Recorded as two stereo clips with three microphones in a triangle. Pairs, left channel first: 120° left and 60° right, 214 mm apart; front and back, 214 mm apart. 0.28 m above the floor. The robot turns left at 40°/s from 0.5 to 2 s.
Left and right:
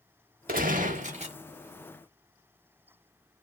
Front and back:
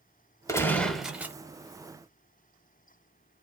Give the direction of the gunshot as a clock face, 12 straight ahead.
2 o'clock.